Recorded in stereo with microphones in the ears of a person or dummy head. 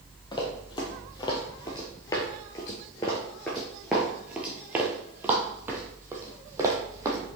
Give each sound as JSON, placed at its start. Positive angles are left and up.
{"t": 0.3, "sound": "running footsteps", "side_deg": 25, "distance_m": 1.8}